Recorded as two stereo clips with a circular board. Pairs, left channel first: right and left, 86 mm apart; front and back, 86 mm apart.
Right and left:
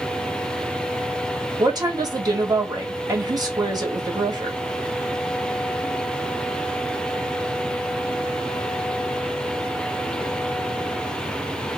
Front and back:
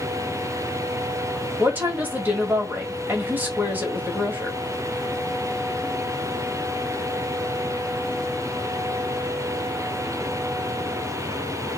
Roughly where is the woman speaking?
Behind left.